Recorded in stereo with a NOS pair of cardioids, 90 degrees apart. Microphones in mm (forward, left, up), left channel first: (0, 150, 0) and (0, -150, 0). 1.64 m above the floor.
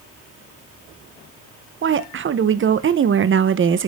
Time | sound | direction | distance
1.8 | a woman speaking | 45° right | 1.3 m